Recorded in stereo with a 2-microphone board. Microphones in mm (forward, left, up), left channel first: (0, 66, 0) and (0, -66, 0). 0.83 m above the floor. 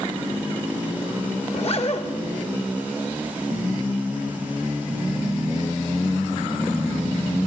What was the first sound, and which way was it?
A zipper, 50° left (ahead or behind).